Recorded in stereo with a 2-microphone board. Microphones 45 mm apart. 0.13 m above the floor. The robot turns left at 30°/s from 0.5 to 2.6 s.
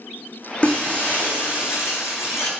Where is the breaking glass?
155° left, 3.5 m; by 2.5 s 95° left, 3.5 m.